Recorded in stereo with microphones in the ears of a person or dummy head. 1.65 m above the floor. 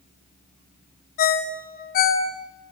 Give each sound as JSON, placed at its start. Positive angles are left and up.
{"t": 1.2, "sound": "a ringtone", "side_deg": 50, "distance_m": 0.9}